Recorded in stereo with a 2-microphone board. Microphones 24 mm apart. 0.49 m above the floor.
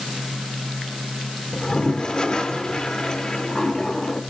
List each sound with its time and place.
1.5 s a toilet flushing: 30° left (ahead or behind), 1.5 m